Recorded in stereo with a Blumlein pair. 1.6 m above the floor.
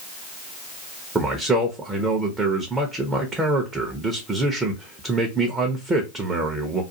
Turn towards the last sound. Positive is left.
turn(degrees=-15)